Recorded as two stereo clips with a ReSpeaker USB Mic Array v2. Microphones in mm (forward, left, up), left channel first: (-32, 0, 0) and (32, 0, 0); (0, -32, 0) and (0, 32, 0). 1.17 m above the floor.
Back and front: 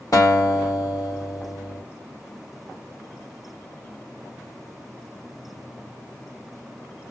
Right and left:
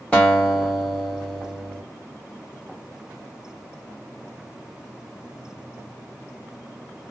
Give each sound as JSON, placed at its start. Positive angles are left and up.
{"t": 0.1, "sound": "a guitar", "azimuth_deg": -165, "distance_m": 2.0}